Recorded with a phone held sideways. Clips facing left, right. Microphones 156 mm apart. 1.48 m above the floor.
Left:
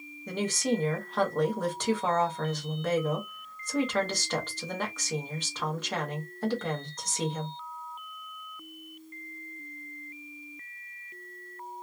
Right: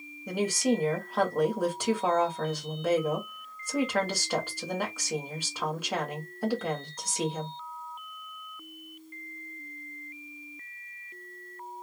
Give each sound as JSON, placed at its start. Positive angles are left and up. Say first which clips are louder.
{"t": 0.3, "sound": "a woman speaking", "louder": "right 2 dB", "side_deg": -10, "distance_m": 1.1}